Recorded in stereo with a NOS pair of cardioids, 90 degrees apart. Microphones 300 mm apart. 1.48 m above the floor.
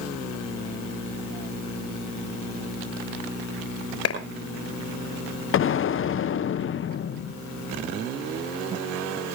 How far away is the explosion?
About 0.7 m.